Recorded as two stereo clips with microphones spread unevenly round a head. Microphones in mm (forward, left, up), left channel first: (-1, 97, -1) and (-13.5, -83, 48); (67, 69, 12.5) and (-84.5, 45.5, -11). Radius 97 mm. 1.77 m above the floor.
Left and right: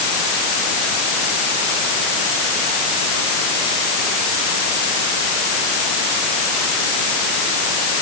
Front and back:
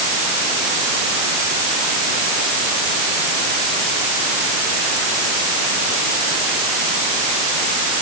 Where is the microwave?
No microwave in this recording.